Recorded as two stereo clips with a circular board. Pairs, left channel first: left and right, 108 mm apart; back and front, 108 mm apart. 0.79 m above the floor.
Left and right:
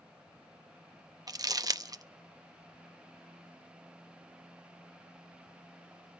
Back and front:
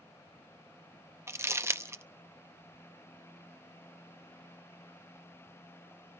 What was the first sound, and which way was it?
Crumpling, 55° right.